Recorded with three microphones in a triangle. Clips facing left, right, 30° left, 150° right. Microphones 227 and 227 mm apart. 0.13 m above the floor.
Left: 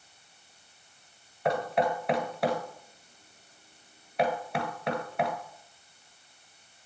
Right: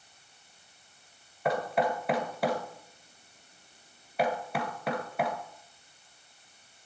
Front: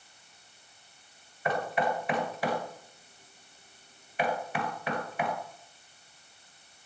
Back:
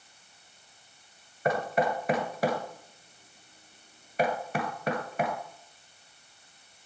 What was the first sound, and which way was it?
Knocking, straight behind.